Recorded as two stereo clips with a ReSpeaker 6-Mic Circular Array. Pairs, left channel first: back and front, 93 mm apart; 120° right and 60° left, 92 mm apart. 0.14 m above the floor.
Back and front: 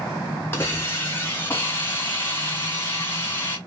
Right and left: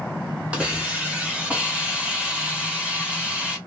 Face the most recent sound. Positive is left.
turn(degrees=130)